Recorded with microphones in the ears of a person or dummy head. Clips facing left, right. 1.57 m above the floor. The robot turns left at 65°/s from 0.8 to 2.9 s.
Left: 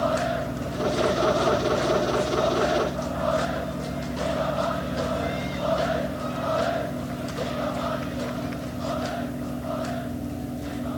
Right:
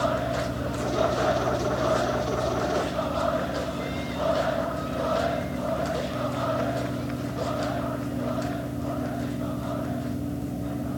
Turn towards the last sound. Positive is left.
No sound to turn to.